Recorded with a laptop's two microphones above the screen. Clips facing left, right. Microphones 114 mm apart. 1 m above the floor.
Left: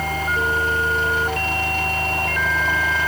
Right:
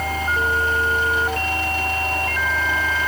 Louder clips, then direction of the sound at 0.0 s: Even; 55° left (ahead or behind).